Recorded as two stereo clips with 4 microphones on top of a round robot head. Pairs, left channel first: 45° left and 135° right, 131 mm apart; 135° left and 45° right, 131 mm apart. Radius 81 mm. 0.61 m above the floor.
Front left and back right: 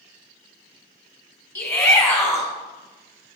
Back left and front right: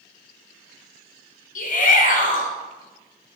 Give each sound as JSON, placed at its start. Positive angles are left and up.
{"t": 1.6, "sound": "a shout", "azimuth_deg": 115, "distance_m": 1.9}